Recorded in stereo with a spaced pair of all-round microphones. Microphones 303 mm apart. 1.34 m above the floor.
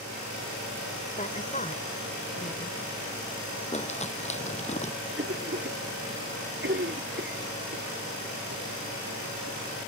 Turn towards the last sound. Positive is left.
turn(degrees=-45)  # may be behind; listen again after turning